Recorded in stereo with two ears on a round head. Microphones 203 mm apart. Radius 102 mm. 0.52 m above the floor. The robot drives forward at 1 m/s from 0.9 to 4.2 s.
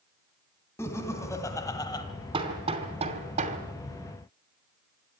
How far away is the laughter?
About 3 m.